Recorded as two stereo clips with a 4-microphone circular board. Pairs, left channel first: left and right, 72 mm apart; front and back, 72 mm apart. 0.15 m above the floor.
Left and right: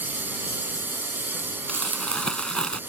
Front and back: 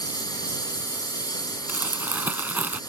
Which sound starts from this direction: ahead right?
A lawn mower, at 0.0 s.